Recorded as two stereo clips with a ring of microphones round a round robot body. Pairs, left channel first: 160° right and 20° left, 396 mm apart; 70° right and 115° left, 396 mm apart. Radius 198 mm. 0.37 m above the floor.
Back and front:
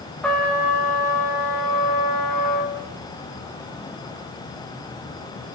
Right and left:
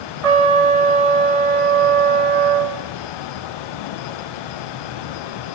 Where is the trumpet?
115° left, 7 m.